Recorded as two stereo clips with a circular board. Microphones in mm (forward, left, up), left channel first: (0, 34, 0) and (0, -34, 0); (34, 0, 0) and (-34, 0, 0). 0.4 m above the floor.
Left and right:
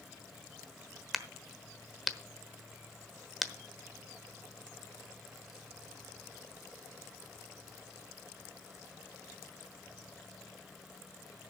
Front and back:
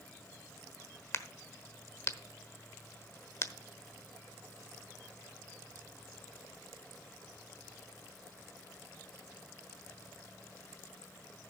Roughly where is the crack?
Ahead.